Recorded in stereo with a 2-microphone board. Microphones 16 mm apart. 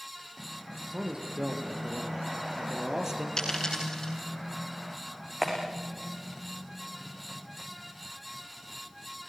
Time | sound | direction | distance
0.9 | a man speaking | 45° right (ahead or behind) | 4.5 m
3.4 | a dropped coin | 40° left (ahead or behind) | 10 m
5.4 | a clap | 25° right (ahead or behind) | 6.5 m